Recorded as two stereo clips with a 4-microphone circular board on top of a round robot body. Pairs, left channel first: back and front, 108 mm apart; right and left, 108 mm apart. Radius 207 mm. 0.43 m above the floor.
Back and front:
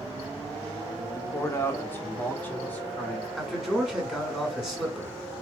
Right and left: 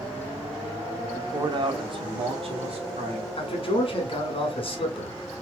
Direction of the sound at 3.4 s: 85° right.